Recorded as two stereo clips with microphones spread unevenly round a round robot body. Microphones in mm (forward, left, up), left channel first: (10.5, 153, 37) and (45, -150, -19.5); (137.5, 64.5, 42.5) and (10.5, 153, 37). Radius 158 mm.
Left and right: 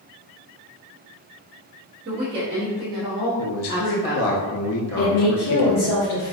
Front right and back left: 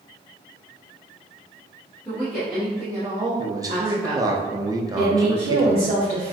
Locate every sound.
2.0 s a woman speaking: 100° right, 0.7 m; by 4.4 s 165° left, 1.3 m
3.4 s a man speaking: 95° left, 0.5 m
5.0 s a woman speaking: 115° left, 1.6 m